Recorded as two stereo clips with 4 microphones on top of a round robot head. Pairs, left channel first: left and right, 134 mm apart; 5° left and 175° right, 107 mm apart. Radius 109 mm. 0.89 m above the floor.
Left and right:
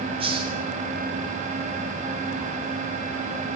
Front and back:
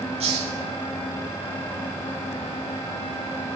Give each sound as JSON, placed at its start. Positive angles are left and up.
{"t": 0.2, "sound": "a hiss", "azimuth_deg": -145, "distance_m": 3.5}